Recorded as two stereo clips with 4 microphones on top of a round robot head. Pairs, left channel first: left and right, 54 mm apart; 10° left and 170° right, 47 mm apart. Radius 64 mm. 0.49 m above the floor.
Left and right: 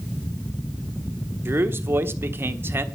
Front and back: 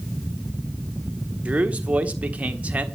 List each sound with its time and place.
1.4 s a man speaking: 120° right, 1.4 m